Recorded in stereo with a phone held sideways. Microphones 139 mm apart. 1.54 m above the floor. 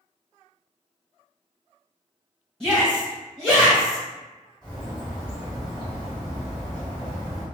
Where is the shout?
5° left (ahead or behind), 1.1 m.